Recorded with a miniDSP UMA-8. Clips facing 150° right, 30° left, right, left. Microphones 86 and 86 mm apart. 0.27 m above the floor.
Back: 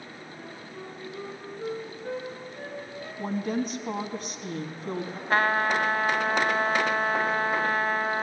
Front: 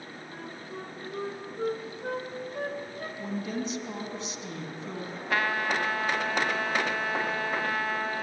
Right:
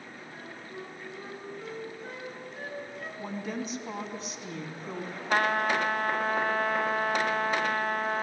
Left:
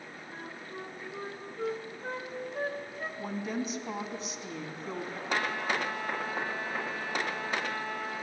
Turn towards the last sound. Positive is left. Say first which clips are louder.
# back 4 dB, right 6 dB
turn(degrees=-105)